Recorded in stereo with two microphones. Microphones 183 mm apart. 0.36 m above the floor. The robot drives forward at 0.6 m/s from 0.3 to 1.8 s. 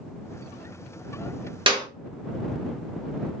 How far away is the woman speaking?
No woman speaking in this recording.